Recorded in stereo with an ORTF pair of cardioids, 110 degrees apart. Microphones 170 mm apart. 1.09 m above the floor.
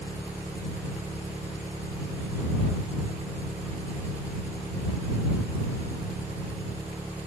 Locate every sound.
0.0 s an engine running: 10° right